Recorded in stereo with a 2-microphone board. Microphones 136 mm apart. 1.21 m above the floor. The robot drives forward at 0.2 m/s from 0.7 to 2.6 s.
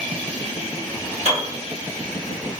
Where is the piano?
45° right (ahead or behind), 1.3 m.